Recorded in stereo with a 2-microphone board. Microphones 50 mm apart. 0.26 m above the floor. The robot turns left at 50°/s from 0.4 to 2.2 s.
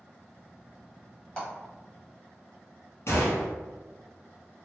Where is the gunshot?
55° left (ahead or behind), 1.0 m.